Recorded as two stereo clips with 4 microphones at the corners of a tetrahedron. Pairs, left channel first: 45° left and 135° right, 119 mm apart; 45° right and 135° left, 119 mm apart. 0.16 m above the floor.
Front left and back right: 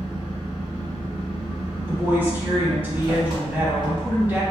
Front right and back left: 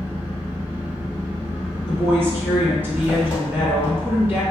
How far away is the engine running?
About 1.4 m.